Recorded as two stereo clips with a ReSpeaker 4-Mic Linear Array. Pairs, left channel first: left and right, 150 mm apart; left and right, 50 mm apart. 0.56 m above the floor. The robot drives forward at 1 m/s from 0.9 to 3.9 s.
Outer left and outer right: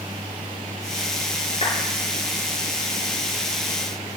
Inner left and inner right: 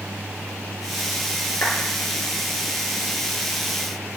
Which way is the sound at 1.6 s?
40° left (ahead or behind).